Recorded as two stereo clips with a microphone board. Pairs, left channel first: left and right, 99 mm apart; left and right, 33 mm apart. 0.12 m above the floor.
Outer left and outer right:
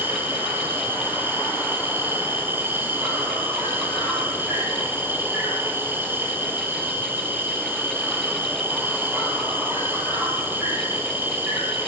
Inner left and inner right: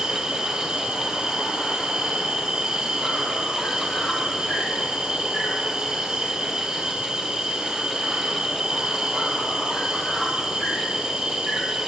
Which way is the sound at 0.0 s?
20° right (ahead or behind).